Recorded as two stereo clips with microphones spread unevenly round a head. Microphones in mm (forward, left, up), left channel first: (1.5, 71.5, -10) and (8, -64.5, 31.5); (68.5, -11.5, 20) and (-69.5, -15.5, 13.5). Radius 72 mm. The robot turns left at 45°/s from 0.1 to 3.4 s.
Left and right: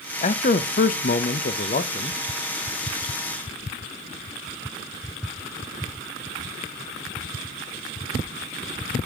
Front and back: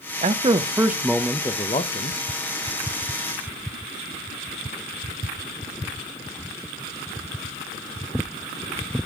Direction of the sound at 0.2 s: 130° left.